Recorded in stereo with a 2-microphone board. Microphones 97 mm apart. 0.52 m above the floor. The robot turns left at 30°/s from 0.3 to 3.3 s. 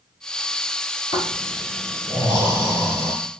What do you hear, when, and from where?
1.1 s snoring: 120° left, 2 m; by 3.1 s 55° left, 2 m